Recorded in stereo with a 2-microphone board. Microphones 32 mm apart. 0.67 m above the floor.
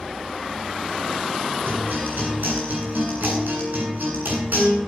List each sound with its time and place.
1.7 s a guitar: 85° right, 9 m